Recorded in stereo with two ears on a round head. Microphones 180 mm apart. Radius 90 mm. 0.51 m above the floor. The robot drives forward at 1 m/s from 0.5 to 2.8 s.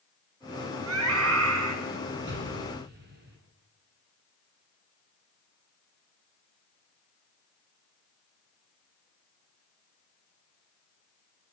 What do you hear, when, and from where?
0.9 s a scream: 80° right, 6 m; by 1.8 s 75° right (ahead or behind), 6 m
2.3 s an explosion: 55° right (ahead or behind), 5 m